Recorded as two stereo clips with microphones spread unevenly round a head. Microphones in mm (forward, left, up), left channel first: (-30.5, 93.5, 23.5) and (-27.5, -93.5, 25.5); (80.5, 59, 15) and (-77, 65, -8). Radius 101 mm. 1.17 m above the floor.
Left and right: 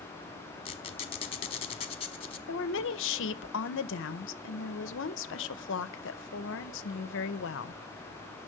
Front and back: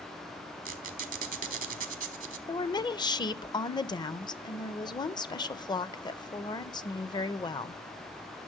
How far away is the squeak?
About 1.2 m.